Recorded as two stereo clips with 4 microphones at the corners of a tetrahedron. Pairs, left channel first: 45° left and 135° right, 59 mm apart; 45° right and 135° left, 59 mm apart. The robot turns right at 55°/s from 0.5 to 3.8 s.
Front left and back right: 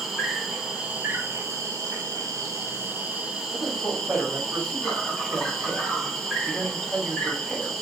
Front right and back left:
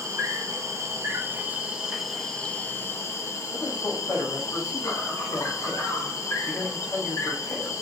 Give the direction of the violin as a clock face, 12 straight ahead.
No violin in this recording.